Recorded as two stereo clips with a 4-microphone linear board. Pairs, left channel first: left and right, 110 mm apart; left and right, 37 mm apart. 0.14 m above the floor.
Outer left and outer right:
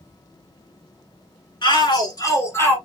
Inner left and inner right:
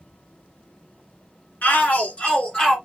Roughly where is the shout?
Left.